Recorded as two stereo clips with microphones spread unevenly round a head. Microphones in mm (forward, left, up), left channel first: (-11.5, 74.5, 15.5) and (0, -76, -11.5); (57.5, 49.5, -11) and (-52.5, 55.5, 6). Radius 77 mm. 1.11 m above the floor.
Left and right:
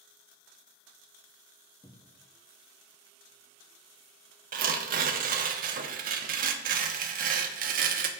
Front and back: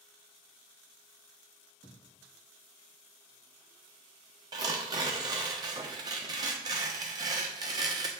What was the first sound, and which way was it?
A cupboard door, 20° left.